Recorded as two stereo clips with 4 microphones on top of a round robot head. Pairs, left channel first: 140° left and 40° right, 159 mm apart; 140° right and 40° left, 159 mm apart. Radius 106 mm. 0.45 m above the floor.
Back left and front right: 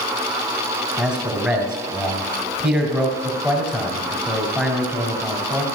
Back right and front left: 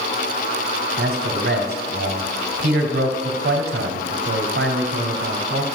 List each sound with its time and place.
1.0 s a man speaking: 50° left, 2.5 m